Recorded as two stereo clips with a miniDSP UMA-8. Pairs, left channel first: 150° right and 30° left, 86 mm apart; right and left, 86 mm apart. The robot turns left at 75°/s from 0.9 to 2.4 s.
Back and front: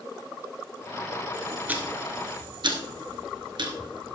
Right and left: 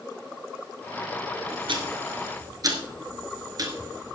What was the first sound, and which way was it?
Ticking, 100° left.